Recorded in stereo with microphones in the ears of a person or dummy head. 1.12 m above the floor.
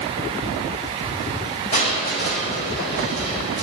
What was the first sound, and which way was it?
Crushing, 40° left (ahead or behind).